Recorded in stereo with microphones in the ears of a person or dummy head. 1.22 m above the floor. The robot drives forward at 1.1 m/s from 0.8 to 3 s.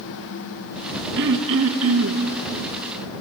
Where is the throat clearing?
55° right (ahead or behind), 1.7 m; by 2.2 s 70° right (ahead or behind), 1.5 m.